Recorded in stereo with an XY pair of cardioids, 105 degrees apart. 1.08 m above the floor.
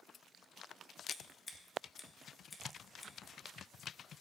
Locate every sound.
1.1 s scissors: 30° left, 1.0 m